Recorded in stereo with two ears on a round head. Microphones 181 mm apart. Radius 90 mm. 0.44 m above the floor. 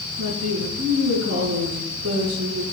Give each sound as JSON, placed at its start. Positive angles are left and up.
{"t": 0.2, "sound": "a woman speaking", "side_deg": -80, "distance_m": 5.5}